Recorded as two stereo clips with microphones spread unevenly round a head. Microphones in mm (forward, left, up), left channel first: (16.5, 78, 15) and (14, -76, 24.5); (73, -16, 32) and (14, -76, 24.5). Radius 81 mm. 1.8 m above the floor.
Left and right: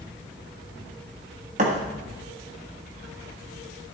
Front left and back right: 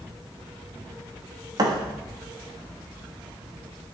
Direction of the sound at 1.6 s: 110° right.